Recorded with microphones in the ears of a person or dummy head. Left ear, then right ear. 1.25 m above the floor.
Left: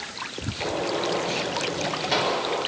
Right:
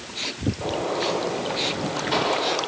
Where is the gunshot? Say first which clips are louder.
Even; 15° left (ahead or behind), 6 m.